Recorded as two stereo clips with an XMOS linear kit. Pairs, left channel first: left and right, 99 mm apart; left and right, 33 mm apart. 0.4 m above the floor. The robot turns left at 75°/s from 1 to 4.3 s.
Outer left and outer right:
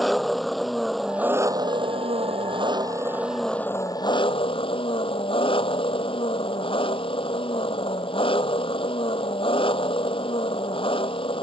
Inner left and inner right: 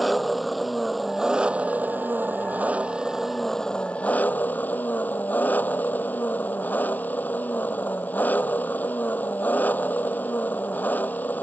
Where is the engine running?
Straight ahead; by 11.4 s 110° left.